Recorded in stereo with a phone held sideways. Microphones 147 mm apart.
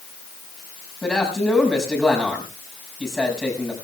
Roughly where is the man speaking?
Centre.